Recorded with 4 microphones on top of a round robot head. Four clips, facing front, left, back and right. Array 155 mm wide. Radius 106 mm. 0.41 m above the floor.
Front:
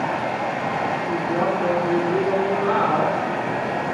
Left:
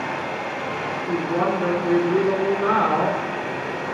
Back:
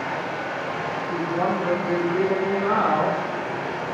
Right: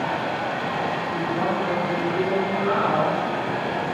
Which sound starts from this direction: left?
A woman speaking, at 1.1 s.